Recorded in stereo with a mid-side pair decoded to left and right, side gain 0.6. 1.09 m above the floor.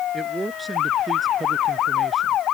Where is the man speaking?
10° right; by 2.4 s 20° right.